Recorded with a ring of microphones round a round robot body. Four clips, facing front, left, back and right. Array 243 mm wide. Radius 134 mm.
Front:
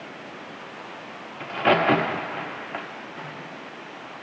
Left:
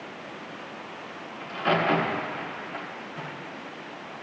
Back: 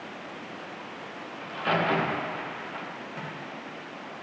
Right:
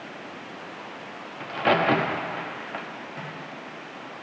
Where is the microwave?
135° right, 4 m.